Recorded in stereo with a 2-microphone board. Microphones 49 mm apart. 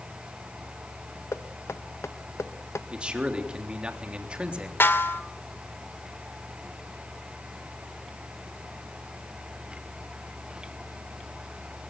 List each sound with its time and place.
1.3 s knocking: 75° left (ahead or behind), 0.9 m
2.9 s a man speaking: 20° right (ahead or behind), 3.5 m
4.8 s a snare drum: 50° left (ahead or behind), 1.6 m